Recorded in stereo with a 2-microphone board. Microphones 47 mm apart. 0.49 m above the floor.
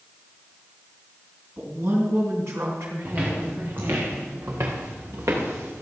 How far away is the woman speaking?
About 4.5 m.